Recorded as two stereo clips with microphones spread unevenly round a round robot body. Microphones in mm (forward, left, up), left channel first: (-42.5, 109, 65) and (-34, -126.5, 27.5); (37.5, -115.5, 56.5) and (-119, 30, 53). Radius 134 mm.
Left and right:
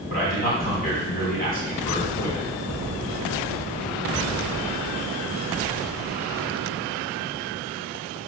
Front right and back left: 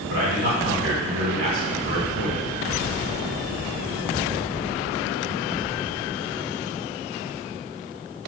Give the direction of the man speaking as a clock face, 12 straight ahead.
7 o'clock.